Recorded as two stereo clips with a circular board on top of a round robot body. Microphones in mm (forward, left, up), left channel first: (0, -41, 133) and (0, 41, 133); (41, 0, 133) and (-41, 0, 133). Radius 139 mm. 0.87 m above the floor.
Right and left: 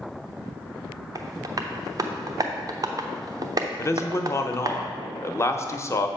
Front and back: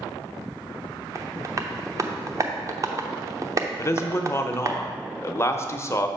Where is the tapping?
135° left, 0.8 m.